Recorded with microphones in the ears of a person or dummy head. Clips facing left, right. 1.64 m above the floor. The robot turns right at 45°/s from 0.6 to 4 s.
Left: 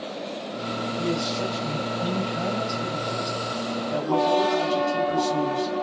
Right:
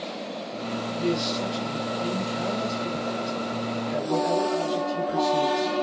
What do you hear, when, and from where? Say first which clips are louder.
1.0 s a man speaking: right 1 dB; 30° right, 2 m; by 5.7 s 105° left, 2 m